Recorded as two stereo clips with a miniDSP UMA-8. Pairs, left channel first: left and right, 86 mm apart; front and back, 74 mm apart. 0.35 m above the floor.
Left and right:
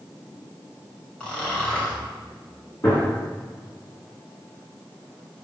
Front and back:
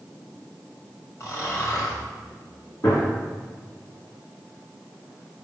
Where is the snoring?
20° left, 2 m.